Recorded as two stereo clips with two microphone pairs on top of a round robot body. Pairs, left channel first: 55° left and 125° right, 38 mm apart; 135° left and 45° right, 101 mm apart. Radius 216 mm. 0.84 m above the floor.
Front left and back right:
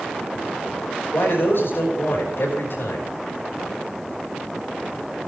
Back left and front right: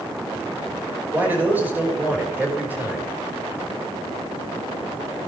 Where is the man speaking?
30° left, 5.5 m.